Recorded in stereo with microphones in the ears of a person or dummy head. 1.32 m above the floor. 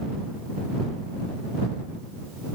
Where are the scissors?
No scissors in this recording.